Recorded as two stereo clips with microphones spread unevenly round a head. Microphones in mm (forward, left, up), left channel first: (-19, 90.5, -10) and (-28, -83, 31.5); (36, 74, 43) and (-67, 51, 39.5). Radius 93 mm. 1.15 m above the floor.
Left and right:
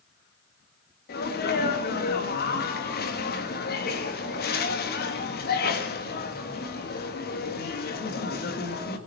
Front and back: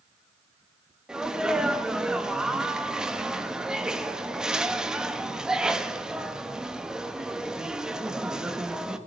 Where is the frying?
No frying in this recording.